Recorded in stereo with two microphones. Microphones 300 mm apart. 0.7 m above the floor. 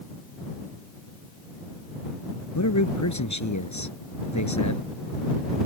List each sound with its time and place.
2.5 s a man speaking: 85° left